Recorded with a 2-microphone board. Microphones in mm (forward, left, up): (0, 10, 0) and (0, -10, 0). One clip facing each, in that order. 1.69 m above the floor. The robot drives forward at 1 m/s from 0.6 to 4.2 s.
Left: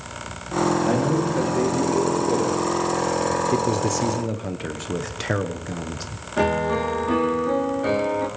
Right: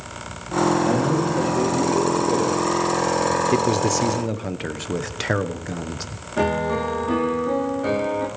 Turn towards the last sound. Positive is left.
turn(degrees=10)  # may be behind; listen again after turning